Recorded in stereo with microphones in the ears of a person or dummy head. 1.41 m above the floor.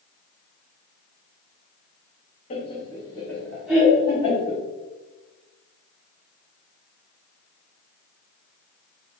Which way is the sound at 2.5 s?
35° left (ahead or behind).